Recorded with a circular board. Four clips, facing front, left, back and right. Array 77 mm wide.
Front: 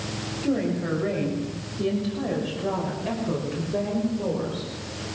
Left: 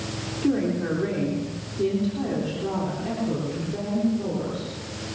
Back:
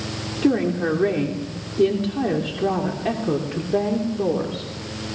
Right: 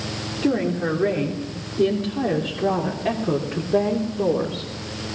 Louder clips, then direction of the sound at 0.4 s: Right 2 dB, back 6 dB; 165° right.